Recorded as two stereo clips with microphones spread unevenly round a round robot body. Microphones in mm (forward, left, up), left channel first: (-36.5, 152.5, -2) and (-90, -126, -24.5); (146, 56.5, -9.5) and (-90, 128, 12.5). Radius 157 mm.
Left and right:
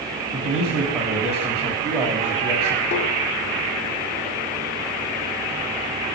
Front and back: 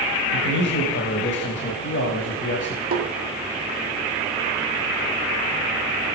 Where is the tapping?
110° left, 2.0 m.